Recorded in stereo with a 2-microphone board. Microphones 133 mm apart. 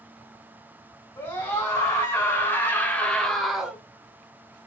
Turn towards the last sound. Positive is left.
turn(degrees=-5)  # may be behind; listen again after turning